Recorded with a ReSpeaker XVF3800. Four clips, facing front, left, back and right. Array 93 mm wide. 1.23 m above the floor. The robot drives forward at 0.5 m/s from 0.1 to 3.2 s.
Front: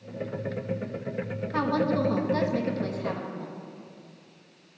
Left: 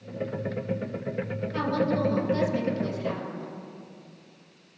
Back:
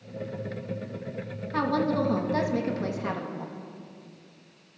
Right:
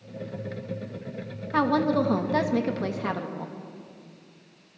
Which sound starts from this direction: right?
A woman speaking, at 1.5 s.